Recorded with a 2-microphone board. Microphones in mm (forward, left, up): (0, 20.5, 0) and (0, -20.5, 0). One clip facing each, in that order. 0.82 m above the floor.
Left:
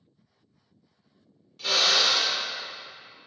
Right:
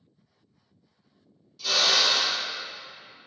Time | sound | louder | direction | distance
1.6 | a drill | even | 40° left (ahead or behind) | 1.2 m